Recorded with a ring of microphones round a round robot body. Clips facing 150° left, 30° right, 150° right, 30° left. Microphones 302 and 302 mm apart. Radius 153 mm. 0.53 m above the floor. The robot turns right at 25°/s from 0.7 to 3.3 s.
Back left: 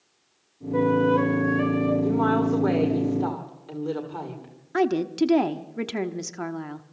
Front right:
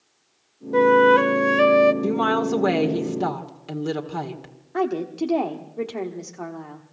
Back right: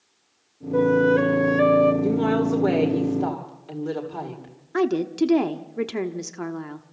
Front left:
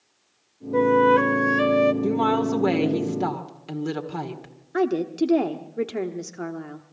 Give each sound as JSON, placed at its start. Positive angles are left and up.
{"t": 0.7, "sound": "a flute", "azimuth_deg": -55, "distance_m": 0.8}
{"t": 2.0, "sound": "a woman speaking", "azimuth_deg": -35, "distance_m": 1.8}
{"t": 4.7, "sound": "a woman speaking", "azimuth_deg": 140, "distance_m": 1.0}